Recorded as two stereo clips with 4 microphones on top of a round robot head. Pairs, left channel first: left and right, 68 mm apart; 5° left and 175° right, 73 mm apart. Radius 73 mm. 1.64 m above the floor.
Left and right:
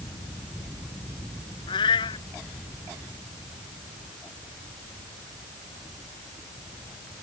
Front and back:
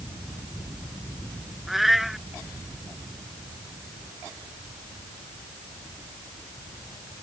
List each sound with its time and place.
1.7 s a cat meowing: 95° left